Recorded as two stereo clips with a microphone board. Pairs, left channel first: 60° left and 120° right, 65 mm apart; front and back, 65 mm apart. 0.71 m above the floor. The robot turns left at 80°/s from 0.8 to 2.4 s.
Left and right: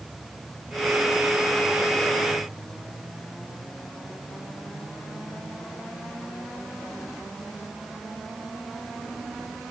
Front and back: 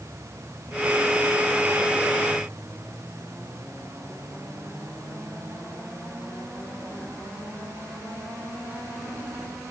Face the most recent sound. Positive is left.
No sound to turn to.